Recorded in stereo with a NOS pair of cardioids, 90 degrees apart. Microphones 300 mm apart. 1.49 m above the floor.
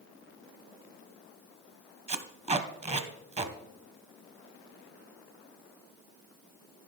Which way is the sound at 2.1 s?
20° right.